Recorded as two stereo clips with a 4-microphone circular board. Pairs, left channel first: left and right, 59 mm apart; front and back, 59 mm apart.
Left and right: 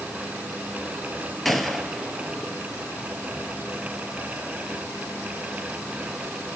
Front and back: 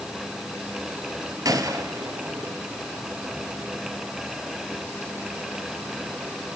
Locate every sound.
1.4 s a gunshot: straight behind, 3 m